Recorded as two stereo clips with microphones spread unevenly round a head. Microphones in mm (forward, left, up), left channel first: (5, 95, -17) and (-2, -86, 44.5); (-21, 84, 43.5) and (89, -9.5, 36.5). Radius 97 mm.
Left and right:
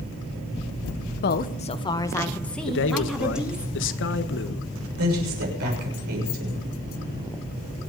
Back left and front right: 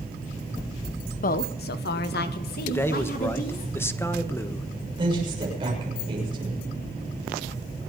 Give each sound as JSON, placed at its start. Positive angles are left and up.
{"t": 1.2, "sound": "a woman speaking", "azimuth_deg": 110, "distance_m": 0.9}
{"t": 2.7, "sound": "a man speaking", "azimuth_deg": 65, "distance_m": 1.3}
{"t": 5.0, "sound": "a woman speaking", "azimuth_deg": -105, "distance_m": 7.0}